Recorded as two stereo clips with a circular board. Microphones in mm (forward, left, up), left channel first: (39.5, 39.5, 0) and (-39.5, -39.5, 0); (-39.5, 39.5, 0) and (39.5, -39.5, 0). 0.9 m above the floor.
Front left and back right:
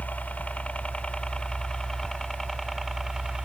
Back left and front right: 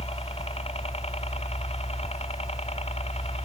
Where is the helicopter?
120° left; by 3.5 s 140° left.